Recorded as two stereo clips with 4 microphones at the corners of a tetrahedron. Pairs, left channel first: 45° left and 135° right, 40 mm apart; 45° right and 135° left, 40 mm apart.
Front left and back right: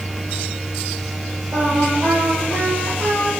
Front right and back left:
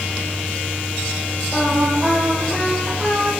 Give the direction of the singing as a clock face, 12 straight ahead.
5 o'clock.